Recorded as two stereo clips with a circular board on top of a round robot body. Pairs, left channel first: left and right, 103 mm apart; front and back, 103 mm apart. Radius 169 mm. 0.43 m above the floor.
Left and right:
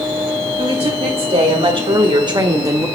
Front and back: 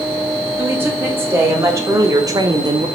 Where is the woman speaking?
110° right, 4.5 m; by 2.9 s 150° right, 1.4 m.